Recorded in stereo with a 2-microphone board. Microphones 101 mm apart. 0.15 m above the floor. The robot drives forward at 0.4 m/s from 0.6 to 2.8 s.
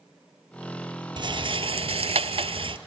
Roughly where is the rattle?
Right.